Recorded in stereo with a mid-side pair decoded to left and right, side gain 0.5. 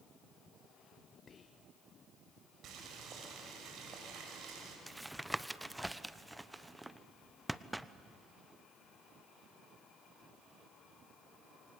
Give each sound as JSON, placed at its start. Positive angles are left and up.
{"t": 1.3, "sound": "whispering", "azimuth_deg": 40, "distance_m": 0.8}
{"t": 2.6, "sound": "boiling", "azimuth_deg": -65, "distance_m": 6.5}
{"t": 4.9, "sound": "tapping", "azimuth_deg": -5, "distance_m": 0.9}